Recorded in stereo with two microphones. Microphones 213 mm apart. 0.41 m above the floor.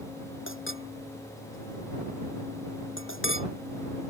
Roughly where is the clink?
Left.